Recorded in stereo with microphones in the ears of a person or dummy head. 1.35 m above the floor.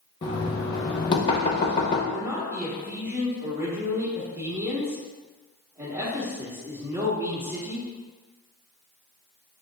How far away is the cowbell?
I don't hear a cowbell.